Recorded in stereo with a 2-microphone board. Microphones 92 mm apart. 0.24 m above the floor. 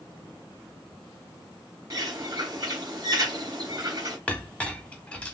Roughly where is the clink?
Centre.